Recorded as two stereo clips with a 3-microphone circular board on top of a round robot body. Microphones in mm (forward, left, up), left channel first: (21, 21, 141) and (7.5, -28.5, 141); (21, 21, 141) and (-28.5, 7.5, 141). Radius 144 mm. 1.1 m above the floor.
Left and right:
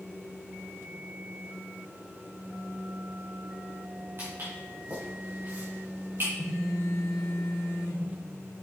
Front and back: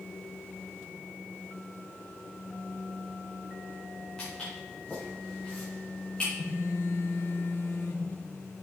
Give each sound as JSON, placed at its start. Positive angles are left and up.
{"t": 4.2, "sound": "footsteps", "azimuth_deg": -60, "distance_m": 4.5}
{"t": 6.4, "sound": "a phone buzzing", "azimuth_deg": 45, "distance_m": 1.4}